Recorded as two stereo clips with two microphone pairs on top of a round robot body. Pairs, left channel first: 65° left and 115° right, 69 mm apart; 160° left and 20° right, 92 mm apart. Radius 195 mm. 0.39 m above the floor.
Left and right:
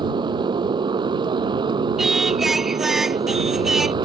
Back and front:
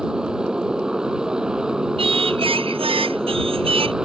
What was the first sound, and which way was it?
A motorcycle, 100° right.